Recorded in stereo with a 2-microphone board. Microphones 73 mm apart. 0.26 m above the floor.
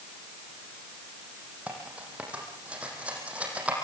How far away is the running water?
I don't hear running water.